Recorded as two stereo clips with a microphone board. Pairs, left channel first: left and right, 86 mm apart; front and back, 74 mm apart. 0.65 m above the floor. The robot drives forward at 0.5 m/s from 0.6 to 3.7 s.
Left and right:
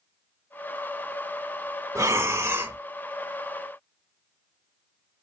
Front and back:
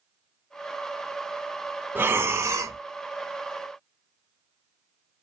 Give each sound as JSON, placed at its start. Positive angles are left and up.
{"t": 1.9, "sound": "breathing", "azimuth_deg": -130, "distance_m": 0.7}